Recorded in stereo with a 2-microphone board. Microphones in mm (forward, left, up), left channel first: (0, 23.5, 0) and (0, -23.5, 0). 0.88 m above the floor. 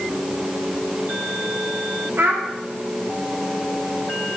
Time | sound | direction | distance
2.2 | a child speaking | 60° right (ahead or behind) | 0.5 m